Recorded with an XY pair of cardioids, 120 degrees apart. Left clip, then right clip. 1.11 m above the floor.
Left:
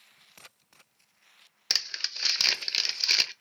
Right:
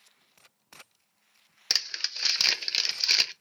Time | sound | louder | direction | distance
1.7 | crumpling | right 1 dB | straight ahead | 0.5 m